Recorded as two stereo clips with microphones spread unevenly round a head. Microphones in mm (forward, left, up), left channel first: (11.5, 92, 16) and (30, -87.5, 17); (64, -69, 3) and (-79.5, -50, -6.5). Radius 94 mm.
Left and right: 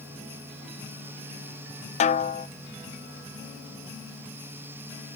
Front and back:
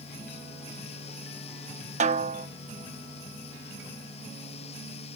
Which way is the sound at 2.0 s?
140° left.